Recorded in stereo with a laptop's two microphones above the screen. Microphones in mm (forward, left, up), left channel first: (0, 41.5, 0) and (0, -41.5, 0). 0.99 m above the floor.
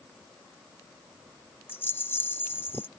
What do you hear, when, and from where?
1.7 s a rattle: 25° left (ahead or behind)